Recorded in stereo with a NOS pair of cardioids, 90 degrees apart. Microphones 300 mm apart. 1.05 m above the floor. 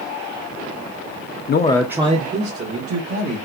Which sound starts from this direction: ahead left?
A man speaking, at 1.5 s.